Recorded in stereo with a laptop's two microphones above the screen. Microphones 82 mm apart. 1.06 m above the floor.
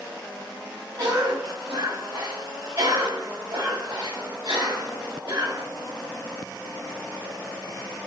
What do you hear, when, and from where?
1.0 s a cough: 60° right (ahead or behind), 2.5 m